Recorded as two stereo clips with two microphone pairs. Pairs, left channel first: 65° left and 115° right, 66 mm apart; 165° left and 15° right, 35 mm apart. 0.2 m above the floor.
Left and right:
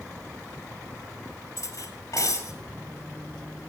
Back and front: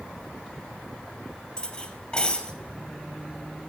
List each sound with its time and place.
1.6 s cutlery clinking: 105° left, 2.5 m